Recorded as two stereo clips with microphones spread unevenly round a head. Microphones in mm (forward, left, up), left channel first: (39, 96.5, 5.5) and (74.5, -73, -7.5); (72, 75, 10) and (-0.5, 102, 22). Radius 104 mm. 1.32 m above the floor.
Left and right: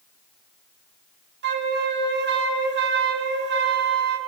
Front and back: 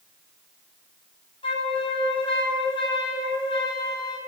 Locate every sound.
1.4 s a flute: 60° right, 1.3 m